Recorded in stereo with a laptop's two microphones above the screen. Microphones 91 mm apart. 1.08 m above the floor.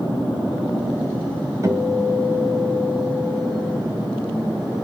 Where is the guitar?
35° right (ahead or behind), 1.5 m.